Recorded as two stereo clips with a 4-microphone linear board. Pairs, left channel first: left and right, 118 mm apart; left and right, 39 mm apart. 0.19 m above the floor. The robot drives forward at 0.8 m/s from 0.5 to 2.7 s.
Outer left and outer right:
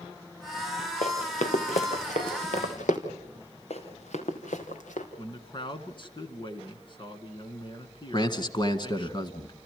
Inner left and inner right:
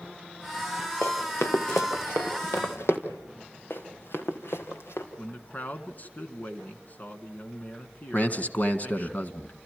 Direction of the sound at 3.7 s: 60° left (ahead or behind).